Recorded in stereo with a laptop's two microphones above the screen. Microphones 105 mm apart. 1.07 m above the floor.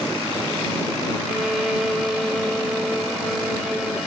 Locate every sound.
1.3 s a violin: 5° right (ahead or behind)